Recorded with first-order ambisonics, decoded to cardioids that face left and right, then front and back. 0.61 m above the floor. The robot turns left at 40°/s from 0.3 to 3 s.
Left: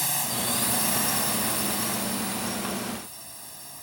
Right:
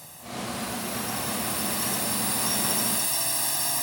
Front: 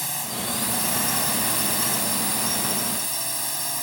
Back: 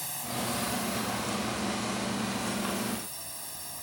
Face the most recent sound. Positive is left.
turn(degrees=-45)